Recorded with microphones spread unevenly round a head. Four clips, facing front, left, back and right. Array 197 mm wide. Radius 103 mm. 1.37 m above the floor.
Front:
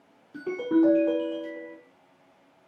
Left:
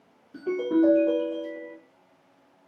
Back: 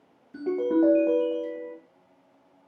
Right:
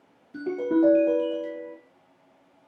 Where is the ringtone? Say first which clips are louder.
Even, even; 170° right, 1.4 m.